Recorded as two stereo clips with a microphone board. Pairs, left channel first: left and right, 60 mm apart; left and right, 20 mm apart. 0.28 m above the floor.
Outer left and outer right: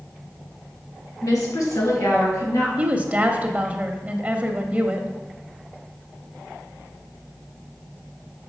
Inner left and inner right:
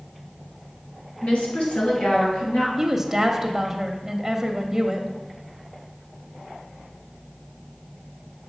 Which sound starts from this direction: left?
A woman speaking, at 1.2 s.